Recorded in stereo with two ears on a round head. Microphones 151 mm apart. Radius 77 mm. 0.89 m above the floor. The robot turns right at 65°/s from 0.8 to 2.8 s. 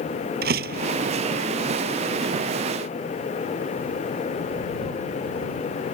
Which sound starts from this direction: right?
A door slam, at 0.4 s.